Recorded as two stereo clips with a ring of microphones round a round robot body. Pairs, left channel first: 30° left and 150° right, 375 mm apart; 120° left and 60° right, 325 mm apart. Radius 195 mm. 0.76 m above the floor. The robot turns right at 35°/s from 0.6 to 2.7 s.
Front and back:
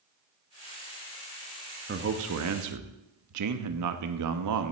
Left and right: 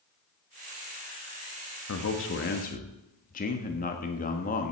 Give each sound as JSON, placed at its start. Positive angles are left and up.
{"t": 1.9, "sound": "a man speaking", "azimuth_deg": 155, "distance_m": 1.2}